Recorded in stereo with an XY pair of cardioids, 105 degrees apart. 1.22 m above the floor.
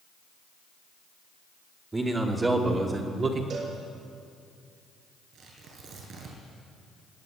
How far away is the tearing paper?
About 8.5 m.